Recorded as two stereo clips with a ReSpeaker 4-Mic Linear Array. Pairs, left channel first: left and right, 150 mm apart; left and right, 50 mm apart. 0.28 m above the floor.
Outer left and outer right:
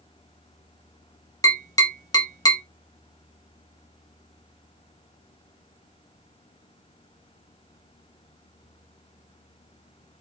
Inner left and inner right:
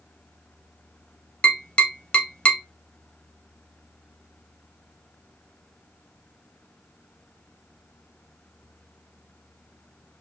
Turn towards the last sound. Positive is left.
turn(degrees=25)  # may be behind; listen again after turning